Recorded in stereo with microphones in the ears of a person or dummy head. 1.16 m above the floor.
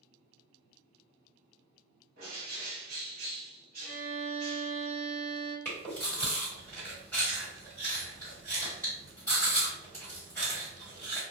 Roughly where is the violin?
Centre.